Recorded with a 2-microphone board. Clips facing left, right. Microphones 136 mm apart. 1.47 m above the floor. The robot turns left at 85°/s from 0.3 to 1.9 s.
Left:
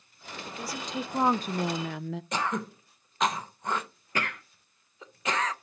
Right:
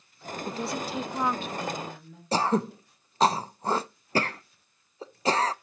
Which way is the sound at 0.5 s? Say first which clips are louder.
Right 5 dB; 140° right.